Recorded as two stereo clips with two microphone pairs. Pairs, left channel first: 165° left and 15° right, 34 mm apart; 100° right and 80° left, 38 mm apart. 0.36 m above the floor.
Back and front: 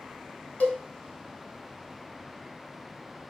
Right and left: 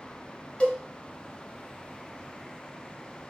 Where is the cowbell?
160° right, 2 m.